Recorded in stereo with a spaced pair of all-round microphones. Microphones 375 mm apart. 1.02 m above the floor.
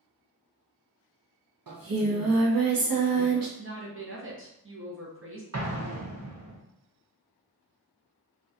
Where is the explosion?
40° right (ahead or behind), 0.5 m.